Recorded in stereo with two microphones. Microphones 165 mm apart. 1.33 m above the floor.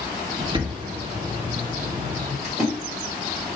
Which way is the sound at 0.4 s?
30° right (ahead or behind).